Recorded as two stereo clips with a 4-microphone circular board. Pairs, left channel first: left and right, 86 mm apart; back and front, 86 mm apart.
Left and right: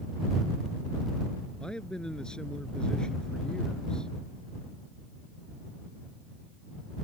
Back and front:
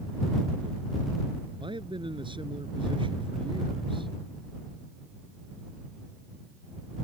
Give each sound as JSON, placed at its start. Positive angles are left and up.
{"t": 1.6, "sound": "a man speaking", "azimuth_deg": 10}